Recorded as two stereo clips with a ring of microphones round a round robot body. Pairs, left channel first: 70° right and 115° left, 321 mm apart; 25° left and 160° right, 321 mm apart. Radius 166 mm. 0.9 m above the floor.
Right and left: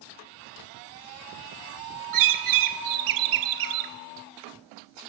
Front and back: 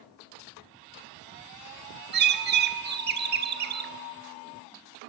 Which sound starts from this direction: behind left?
A bird, at 2.1 s.